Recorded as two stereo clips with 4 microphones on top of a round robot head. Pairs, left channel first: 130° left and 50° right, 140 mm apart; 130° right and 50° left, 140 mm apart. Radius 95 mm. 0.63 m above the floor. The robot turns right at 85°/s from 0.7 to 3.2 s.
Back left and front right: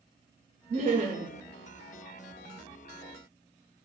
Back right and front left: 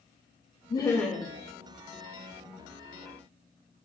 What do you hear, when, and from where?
0.7 s laughter: 75° right, 0.7 m; by 1.3 s 20° right, 0.7 m